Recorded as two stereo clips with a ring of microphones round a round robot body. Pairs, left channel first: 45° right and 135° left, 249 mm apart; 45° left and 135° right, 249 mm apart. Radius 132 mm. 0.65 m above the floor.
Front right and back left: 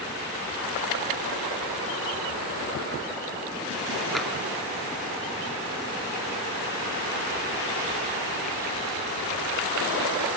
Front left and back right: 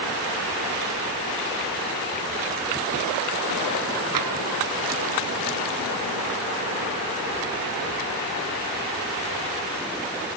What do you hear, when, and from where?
4.2 s tapping: 135° right, 2.5 m